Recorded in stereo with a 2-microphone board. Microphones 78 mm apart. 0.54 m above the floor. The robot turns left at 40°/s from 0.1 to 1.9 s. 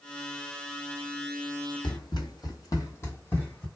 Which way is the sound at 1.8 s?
70° left (ahead or behind).